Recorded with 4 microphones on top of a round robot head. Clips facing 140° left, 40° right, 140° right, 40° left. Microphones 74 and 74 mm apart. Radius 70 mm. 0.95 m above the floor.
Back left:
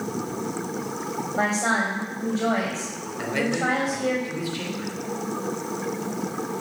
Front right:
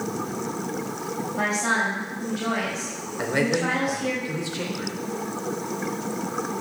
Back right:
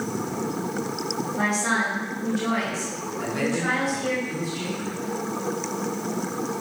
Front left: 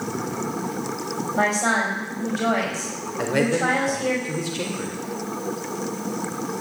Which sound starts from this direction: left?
A woman speaking, at 1.4 s.